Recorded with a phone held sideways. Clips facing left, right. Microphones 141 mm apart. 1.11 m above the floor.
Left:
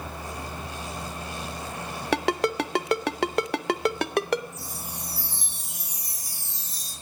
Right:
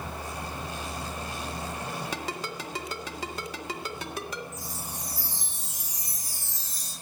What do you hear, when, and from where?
2.1 s a ringtone: 65° left (ahead or behind), 0.7 m
4.5 s a chime: 45° right (ahead or behind), 8 m